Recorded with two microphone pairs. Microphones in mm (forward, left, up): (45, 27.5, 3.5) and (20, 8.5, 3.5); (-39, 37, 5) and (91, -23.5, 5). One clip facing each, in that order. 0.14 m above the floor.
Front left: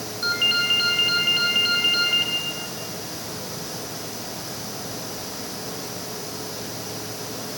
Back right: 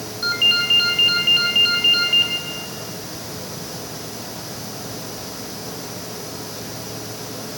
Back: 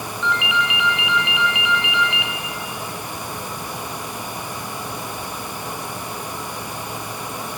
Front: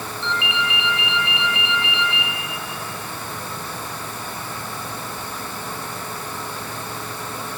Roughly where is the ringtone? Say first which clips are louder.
Back right 4 dB, back 3 dB; ahead right.